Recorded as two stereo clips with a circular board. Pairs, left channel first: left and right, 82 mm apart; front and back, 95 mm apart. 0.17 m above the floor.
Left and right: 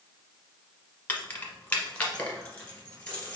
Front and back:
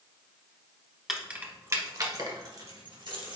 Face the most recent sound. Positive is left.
turn(degrees=165)